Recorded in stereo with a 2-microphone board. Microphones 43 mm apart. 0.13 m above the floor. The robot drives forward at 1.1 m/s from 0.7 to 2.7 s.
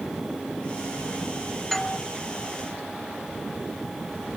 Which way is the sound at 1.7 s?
5° left (ahead or behind).